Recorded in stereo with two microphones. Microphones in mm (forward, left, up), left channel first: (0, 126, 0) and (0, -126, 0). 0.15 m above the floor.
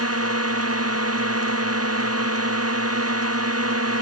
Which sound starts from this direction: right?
A drone, at 0.0 s.